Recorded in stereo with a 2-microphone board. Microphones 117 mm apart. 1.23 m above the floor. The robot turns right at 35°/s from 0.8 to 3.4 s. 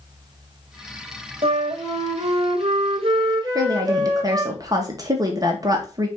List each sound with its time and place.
1.4 s a flute: 115° right, 1.9 m; by 4.5 s 45° right, 1.9 m
3.5 s a woman speaking: 30° right (ahead or behind), 1.7 m